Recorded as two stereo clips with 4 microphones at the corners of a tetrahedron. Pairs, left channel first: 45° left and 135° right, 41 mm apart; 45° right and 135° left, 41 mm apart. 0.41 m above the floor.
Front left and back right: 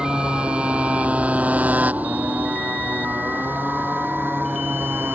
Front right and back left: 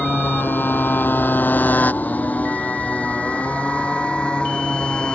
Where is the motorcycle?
70° right; by 5.2 s 110° right.